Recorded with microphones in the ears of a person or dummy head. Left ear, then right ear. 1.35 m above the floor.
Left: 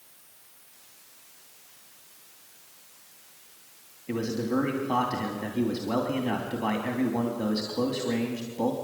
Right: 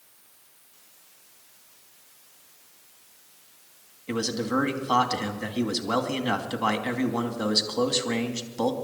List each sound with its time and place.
4.1 s a man speaking: 50° right (ahead or behind), 2.5 m